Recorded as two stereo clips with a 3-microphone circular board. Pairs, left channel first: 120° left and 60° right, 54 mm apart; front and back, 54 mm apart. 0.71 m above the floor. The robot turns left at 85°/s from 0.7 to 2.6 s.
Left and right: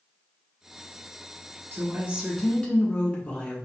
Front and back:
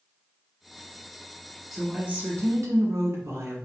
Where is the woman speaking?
90° right, 1.5 m; by 3.6 s 165° right, 1.5 m.